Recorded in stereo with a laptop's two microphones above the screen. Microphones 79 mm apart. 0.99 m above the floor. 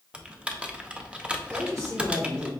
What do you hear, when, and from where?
0.1 s typing on a keyboard: 15° right (ahead or behind), 0.6 m
1.5 s a man speaking: 40° right (ahead or behind), 1.3 m